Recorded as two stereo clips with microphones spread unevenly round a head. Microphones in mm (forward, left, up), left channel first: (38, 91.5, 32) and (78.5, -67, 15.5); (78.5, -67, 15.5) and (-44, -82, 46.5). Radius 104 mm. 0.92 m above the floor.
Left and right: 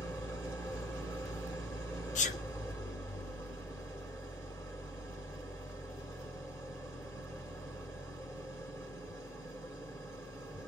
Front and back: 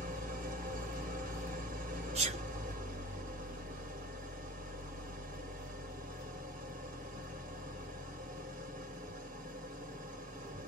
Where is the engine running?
Straight behind, 1.1 m.